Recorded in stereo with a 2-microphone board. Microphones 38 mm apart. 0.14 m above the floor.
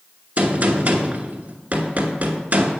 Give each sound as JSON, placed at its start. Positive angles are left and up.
{"t": 0.4, "sound": "a gunshot", "side_deg": -40, "distance_m": 1.3}